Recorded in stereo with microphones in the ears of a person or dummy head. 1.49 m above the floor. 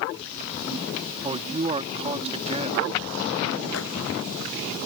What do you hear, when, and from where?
1.2 s a man speaking: 25° right (ahead or behind)
3.7 s a microwave: 75° left (ahead or behind)